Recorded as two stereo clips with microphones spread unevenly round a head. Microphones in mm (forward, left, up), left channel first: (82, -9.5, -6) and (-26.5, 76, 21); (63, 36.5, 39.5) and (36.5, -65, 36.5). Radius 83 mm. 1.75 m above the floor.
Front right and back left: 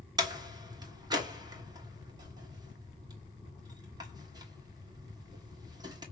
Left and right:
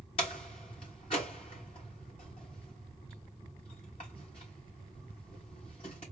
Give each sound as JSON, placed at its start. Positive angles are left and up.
{"t": 0.2, "sound": "a door slam", "azimuth_deg": 110, "distance_m": 1.4}